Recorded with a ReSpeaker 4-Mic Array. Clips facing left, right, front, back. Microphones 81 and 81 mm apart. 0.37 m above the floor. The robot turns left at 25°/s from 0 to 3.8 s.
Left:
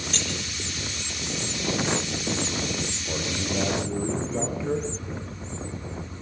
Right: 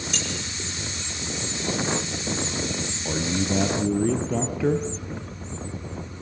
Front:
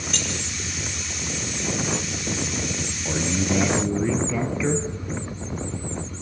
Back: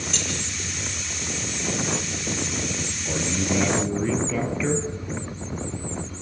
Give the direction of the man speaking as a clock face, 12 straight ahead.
2 o'clock.